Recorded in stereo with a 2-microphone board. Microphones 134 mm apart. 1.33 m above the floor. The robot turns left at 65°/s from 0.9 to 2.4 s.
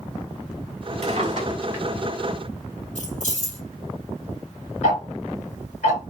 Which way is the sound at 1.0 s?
55° right (ahead or behind).